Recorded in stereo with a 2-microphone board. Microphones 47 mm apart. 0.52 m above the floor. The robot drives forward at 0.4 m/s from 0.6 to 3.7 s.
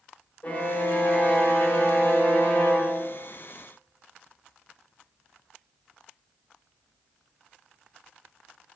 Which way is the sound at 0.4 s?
30° left (ahead or behind).